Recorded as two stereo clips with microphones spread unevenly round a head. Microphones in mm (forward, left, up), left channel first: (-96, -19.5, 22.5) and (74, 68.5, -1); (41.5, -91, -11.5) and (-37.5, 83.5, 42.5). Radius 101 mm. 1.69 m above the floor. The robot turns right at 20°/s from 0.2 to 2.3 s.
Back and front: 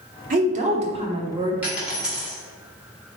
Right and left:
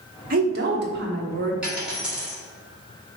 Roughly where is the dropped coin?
Behind left.